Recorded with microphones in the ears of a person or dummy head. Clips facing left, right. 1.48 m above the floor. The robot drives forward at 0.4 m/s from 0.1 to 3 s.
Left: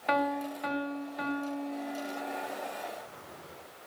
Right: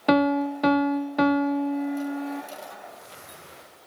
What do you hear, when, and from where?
0.1 s a piano: 60° right (ahead or behind), 0.9 m; by 2.4 s 55° right (ahead or behind), 1.0 m